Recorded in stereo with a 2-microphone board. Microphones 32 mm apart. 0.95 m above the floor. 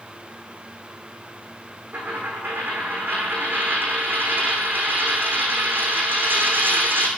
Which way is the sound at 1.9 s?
75° right (ahead or behind).